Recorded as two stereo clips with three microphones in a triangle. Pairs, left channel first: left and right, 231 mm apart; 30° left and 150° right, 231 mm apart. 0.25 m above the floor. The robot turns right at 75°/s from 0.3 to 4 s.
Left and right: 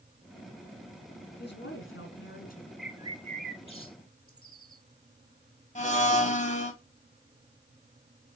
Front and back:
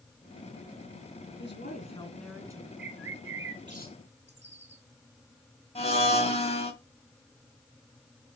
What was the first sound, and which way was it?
A woman speaking, 50° left.